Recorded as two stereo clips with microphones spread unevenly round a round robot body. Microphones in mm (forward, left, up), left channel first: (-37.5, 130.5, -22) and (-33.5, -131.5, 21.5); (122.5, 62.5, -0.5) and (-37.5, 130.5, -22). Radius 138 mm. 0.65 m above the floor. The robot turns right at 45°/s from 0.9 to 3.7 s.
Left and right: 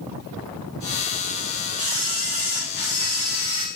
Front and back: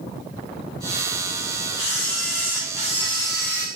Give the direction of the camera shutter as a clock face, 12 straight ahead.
1 o'clock.